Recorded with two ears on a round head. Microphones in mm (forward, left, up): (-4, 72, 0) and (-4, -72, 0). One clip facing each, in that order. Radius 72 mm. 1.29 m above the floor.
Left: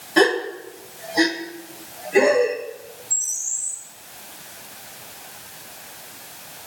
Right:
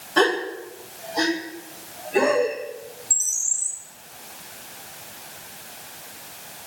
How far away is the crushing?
I don't hear crushing.